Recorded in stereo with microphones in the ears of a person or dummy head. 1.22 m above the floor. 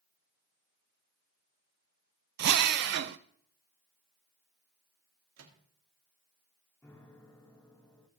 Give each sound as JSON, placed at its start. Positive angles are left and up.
{"t": 2.4, "sound": "a drill", "side_deg": -60, "distance_m": 0.5}
{"t": 5.4, "sound": "a microwave", "side_deg": -85, "distance_m": 1.8}
{"t": 6.8, "sound": "a piano", "side_deg": 10, "distance_m": 0.9}